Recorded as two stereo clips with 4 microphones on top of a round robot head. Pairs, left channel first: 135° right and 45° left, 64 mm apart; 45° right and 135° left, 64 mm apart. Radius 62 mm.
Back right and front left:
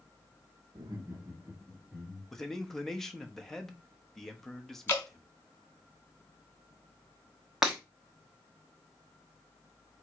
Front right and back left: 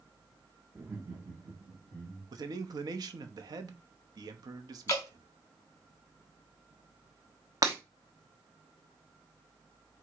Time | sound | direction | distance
0.8 | laughter | 70° left | 0.7 m
2.3 | a man speaking | 140° left | 0.8 m
4.9 | dripping | 90° right | 1.0 m
7.6 | breaking glass | 125° left | 0.7 m